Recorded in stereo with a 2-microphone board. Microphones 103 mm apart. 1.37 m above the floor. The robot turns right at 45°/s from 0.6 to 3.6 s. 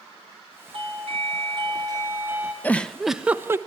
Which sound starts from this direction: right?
A doorbell, at 0.7 s.